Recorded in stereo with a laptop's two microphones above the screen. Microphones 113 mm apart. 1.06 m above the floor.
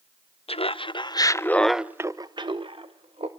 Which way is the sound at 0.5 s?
60° left (ahead or behind).